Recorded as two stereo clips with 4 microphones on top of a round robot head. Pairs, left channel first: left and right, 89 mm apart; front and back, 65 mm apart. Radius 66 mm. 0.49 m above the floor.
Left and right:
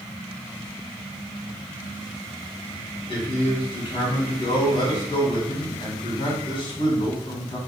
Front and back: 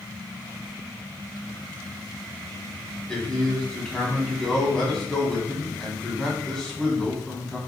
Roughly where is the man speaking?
Left.